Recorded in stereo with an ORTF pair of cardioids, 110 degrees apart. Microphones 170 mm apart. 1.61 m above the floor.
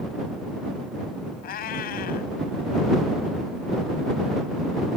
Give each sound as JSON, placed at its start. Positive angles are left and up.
{"t": 1.4, "sound": "a cat meowing", "azimuth_deg": 65}